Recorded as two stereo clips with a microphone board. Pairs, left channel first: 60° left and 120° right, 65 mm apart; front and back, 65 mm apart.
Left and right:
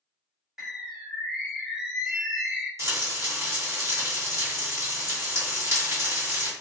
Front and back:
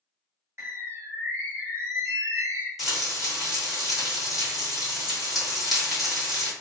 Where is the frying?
95° right, 1.5 m.